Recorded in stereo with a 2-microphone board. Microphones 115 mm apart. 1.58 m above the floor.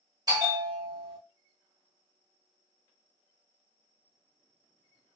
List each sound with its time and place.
0.3 s a bell: 35° right (ahead or behind), 1.1 m